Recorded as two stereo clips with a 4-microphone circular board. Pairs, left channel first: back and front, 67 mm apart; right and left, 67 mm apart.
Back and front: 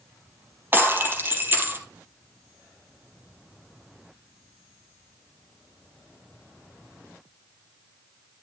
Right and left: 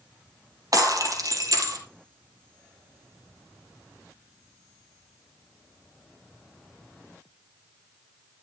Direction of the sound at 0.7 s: 60° left.